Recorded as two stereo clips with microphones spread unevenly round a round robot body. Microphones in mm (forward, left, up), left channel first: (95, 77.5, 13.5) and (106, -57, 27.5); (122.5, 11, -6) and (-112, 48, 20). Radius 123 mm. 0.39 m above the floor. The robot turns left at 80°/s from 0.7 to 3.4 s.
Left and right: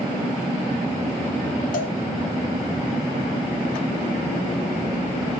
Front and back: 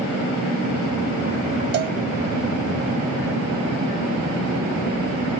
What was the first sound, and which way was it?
A cowbell, 125° left.